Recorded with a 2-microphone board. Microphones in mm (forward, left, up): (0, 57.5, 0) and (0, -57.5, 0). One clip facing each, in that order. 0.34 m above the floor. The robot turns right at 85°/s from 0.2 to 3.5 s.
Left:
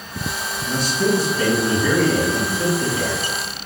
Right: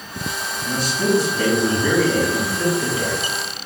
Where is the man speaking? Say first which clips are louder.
Even; 130° right, 3 m; by 3.7 s 115° left, 3 m.